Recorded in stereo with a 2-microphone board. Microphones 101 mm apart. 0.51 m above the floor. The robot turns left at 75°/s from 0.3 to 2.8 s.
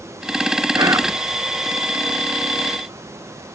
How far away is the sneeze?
No sneeze in this recording.